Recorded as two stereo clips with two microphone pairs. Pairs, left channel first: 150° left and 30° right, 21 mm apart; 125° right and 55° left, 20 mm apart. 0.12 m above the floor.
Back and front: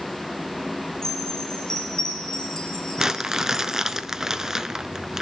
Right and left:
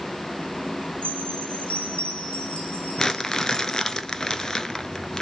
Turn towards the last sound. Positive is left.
turn(degrees=-75)